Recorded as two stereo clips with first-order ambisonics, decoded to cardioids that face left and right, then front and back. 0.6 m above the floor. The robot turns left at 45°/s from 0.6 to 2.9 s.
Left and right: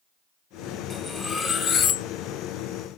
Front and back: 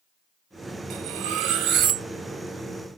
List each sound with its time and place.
0.9 s cutlery clinking: 175° right, 0.9 m; by 2.1 s 130° left, 0.9 m